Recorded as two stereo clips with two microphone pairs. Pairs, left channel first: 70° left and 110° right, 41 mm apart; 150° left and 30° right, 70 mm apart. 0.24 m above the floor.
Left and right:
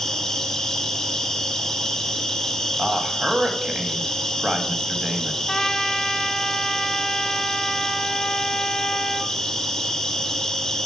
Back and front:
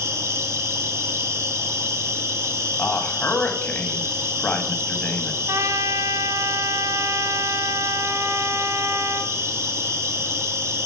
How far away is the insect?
About 1.0 m.